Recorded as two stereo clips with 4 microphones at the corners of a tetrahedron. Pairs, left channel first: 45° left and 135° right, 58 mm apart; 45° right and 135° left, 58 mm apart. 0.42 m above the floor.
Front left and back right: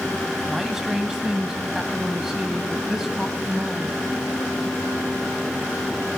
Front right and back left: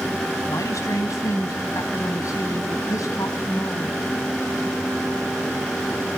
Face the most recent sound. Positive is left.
turn(degrees=-55)